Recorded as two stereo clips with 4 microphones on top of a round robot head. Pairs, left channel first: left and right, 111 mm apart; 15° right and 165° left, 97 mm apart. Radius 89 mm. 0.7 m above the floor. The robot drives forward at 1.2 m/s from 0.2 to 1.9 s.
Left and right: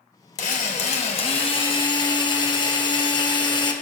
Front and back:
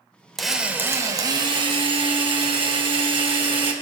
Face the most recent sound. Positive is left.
turn(degrees=140)